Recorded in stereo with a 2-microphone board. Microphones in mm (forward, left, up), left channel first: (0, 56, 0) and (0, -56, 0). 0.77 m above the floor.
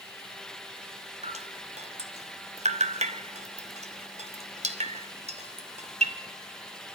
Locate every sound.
1.2 s dripping: 65° right (ahead or behind), 2 m